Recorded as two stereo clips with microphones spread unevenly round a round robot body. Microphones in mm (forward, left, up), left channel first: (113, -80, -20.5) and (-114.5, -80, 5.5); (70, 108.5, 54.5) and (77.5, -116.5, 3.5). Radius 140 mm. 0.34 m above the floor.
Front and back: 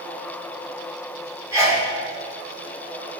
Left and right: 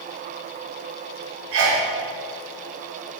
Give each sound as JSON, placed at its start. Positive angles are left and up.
{"t": 1.5, "sound": "a sneeze", "azimuth_deg": -105, "distance_m": 3.0}